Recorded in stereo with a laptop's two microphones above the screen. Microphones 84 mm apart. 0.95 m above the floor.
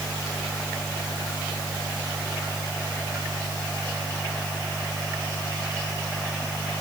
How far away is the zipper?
No zipper in this recording.